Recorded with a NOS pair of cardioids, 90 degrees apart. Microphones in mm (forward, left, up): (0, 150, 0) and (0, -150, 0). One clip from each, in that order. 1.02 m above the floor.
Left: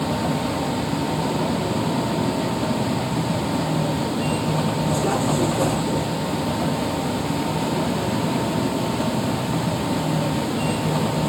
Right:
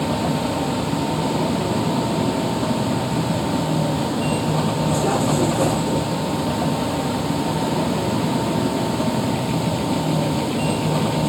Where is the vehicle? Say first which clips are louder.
Right 2 dB; 20° right.